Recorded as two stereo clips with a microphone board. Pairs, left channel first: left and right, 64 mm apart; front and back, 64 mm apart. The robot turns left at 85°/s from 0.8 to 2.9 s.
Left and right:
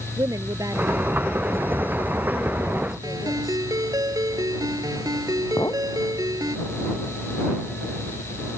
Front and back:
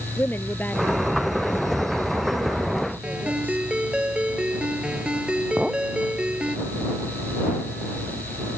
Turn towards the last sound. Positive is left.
turn(degrees=105)